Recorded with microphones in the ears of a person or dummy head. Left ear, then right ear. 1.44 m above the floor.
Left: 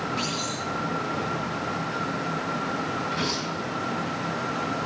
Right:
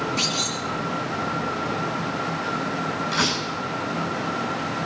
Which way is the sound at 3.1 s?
45° right (ahead or behind).